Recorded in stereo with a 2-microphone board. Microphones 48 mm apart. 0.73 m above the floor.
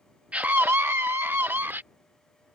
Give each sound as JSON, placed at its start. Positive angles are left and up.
{"t": 0.3, "sound": "a scream", "side_deg": -25}